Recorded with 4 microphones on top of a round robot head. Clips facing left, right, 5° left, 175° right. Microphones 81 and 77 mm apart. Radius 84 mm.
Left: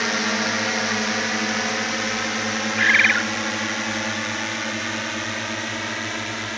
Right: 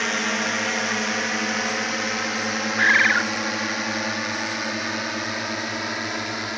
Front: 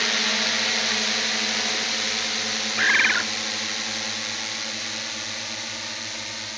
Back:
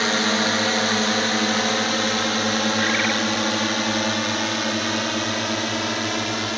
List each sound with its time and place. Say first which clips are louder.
0.0 s a drone: left 1 dB, back 6 dB; 170° left; by 6.6 s 170° right
2.8 s a bird: right 1 dB, even; 30° right